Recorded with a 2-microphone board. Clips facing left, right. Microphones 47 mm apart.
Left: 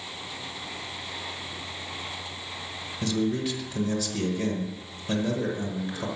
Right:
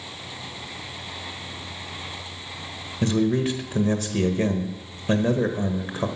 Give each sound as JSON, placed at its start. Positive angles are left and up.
{"t": 3.0, "sound": "a man speaking", "side_deg": -40, "distance_m": 1.2}